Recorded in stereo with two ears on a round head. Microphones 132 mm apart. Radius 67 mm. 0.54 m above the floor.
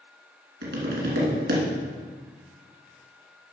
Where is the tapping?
70° right (ahead or behind), 2.5 m.